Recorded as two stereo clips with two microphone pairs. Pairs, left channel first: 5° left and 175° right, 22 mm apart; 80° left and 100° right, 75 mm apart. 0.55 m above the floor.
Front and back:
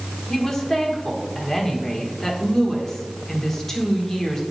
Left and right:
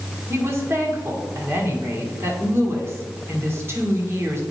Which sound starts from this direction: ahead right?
A woman speaking, at 0.3 s.